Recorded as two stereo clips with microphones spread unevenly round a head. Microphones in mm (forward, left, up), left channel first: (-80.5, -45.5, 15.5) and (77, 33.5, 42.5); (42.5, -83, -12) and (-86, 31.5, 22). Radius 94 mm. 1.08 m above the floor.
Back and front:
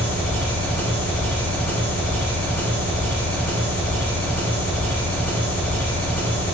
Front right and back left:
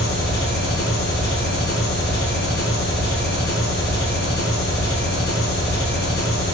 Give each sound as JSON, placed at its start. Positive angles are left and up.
{"t": 0.0, "sound": "an engine running", "azimuth_deg": -70, "distance_m": 3.5}